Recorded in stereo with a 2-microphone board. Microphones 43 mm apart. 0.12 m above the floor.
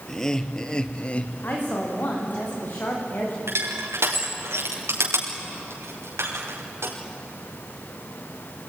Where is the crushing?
75° right (ahead or behind), 6.5 m.